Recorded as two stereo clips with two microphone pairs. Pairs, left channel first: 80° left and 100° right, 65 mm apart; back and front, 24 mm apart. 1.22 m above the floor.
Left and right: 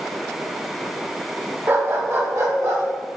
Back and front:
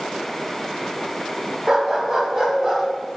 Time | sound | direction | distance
1.7 | a dog barking | 65° right | 0.8 m